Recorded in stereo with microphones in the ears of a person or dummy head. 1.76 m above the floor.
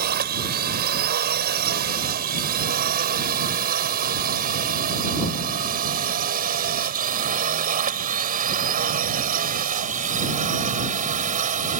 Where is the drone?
50° right (ahead or behind); by 11.8 s 40° right (ahead or behind).